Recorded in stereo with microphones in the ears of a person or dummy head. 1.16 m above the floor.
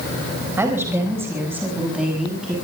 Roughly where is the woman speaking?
Centre.